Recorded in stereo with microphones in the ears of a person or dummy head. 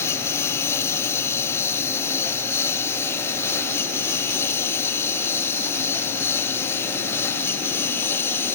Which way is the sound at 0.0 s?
20° left (ahead or behind).